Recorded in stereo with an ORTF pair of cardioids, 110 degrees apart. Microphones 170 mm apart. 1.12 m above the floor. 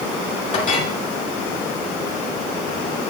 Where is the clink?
50° left, 2.5 m.